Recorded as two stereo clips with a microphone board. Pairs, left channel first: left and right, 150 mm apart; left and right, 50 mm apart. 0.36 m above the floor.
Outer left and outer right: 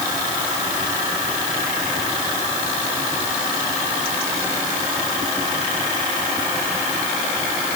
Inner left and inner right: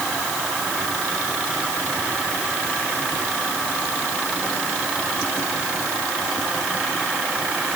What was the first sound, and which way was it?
Only background noise.